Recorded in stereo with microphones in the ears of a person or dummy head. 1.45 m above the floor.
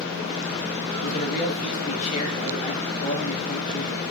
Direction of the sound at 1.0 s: 45° left (ahead or behind).